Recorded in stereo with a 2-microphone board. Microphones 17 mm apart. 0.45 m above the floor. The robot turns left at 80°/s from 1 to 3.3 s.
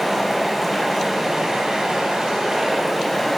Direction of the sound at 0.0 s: 15° right.